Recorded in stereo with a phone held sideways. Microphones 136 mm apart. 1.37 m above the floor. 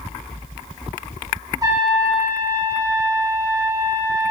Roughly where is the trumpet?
Right.